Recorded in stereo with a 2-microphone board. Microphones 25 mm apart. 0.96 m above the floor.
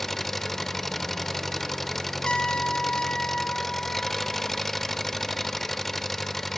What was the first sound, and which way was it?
An engine running, 10° left (ahead or behind).